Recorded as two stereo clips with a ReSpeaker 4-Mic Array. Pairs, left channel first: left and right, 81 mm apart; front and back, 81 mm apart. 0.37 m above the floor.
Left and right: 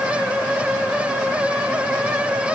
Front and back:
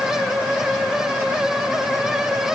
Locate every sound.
Only background noise.